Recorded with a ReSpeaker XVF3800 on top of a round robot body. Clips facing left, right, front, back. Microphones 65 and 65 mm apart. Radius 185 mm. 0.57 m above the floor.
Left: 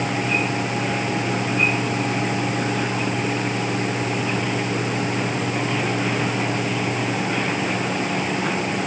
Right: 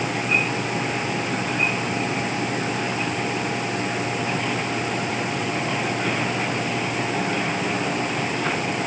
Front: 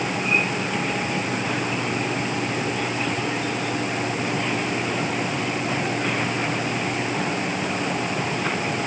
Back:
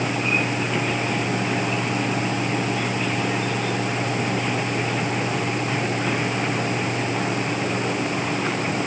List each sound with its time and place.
Only background noise.